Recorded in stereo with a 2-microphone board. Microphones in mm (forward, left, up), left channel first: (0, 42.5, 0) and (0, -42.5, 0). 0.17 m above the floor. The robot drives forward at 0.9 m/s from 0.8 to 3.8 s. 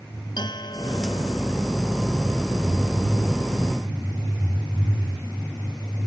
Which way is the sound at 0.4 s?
65° left (ahead or behind).